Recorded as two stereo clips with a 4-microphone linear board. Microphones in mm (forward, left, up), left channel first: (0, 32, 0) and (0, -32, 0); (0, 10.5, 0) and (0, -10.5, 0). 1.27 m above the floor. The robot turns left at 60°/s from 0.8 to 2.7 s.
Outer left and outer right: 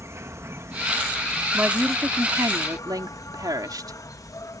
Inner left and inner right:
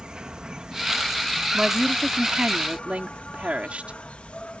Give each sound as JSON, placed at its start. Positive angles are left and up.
{"t": 0.0, "sound": "an insect", "azimuth_deg": -130}
{"t": 1.5, "sound": "a woman speaking", "azimuth_deg": -25}